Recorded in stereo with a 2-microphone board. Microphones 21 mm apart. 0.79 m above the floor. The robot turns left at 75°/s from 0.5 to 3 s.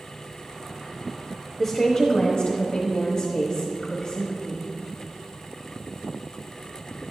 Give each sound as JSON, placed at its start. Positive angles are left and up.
{"t": 1.6, "sound": "a woman speaking", "azimuth_deg": 175, "distance_m": 1.0}